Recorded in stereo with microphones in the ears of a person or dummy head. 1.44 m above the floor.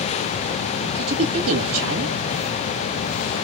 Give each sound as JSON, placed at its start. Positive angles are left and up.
{"t": 0.8, "sound": "a woman speaking", "side_deg": -80, "distance_m": 2.5}